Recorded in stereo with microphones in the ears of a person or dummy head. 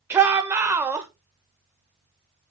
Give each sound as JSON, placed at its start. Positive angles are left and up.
{"t": 0.1, "sound": "a shout", "side_deg": -15, "distance_m": 1.3}